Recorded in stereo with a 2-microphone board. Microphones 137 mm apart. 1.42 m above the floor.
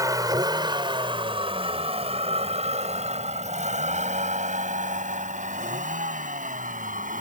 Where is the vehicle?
25° right (ahead or behind); by 7.2 s 70° right (ahead or behind).